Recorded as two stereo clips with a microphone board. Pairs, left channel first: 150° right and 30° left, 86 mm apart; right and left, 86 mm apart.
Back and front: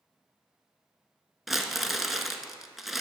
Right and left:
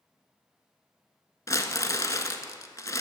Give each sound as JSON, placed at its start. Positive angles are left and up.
{"t": 1.5, "sound": "crumpling", "azimuth_deg": -60, "distance_m": 0.7}